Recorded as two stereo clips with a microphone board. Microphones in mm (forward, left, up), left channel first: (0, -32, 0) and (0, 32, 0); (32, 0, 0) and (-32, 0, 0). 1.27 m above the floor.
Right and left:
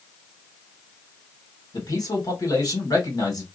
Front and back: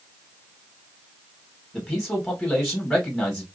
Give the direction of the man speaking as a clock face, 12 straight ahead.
3 o'clock.